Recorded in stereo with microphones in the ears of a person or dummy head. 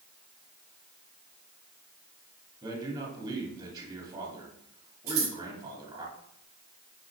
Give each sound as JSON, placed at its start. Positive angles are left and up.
{"t": 2.6, "sound": "a man speaking", "side_deg": -30, "distance_m": 2.0}
{"t": 5.1, "sound": "scissors", "side_deg": -70, "distance_m": 4.5}